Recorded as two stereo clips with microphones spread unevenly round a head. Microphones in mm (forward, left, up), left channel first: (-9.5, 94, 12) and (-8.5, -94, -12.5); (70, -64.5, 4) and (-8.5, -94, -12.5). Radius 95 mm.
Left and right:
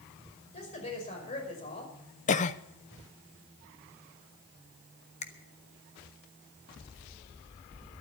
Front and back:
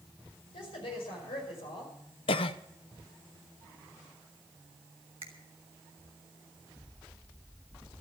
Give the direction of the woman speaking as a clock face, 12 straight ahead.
11 o'clock.